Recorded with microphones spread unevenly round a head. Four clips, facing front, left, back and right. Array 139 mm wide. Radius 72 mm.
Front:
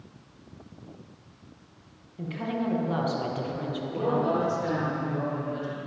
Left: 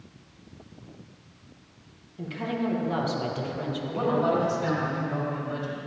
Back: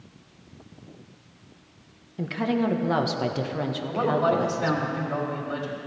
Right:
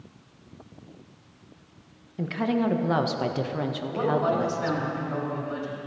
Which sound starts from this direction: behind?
A man speaking, at 3.9 s.